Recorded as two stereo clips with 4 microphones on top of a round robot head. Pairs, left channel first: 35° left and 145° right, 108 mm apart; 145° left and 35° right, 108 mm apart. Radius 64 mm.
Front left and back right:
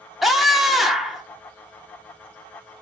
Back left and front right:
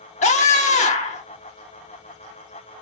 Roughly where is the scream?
Behind left.